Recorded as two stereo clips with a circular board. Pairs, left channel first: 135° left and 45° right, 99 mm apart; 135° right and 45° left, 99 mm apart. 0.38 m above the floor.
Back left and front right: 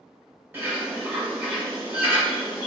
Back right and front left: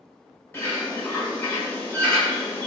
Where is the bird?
95° right, 1.5 m.